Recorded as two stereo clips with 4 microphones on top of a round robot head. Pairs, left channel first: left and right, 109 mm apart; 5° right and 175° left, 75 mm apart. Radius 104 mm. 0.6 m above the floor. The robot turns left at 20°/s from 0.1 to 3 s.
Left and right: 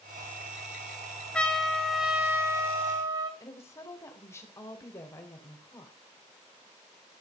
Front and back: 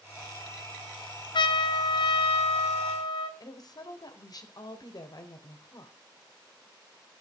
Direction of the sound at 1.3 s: 10° left.